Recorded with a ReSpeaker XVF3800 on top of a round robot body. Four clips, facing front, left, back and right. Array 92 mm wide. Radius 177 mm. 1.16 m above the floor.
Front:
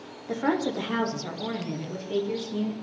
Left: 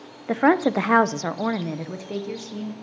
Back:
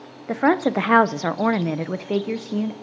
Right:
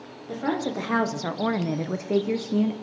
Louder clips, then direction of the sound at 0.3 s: Left 9 dB, back 7 dB; 125° left.